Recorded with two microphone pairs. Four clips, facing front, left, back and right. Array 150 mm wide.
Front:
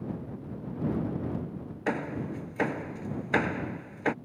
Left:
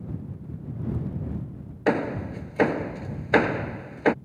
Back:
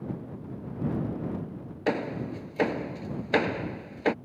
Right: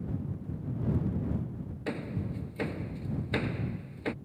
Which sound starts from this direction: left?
Hammering, at 1.9 s.